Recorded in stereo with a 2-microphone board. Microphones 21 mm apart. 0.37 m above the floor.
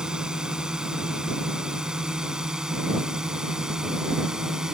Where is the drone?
40° right (ahead or behind); by 4.8 s 30° right (ahead or behind).